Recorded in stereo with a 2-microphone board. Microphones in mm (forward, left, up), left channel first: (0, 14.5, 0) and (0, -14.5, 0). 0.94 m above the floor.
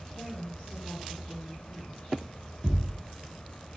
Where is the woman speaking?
80° left, 4 m; by 2.2 s 85° left, 3 m.